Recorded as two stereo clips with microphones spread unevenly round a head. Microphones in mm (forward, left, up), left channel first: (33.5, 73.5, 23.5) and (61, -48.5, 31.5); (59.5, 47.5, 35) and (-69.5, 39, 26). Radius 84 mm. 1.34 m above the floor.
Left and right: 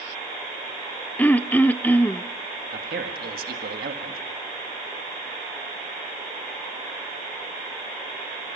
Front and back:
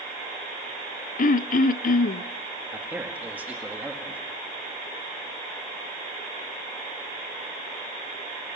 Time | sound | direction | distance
1.2 | throat clearing | 25° left | 0.5 m
2.7 | a man speaking | 95° right | 2.0 m